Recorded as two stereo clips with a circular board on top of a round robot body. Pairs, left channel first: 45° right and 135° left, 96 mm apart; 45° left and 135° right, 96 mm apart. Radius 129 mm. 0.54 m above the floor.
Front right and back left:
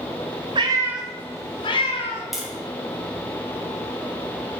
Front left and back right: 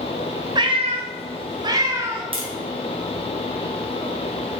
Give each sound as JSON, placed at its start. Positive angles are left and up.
{"t": 0.6, "sound": "a cat meowing", "azimuth_deg": 175, "distance_m": 0.9}
{"t": 2.3, "sound": "tapping", "azimuth_deg": -140, "distance_m": 2.0}